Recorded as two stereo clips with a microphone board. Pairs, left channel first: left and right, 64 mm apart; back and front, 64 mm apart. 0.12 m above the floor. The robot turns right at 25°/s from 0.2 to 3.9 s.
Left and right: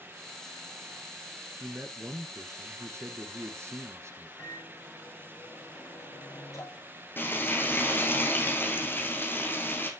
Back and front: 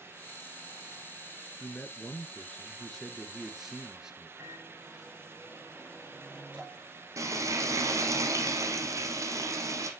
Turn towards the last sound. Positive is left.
turn(degrees=35)